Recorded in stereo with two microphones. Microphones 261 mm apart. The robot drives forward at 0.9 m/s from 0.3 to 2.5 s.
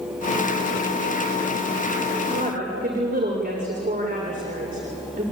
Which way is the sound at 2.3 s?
35° right (ahead or behind).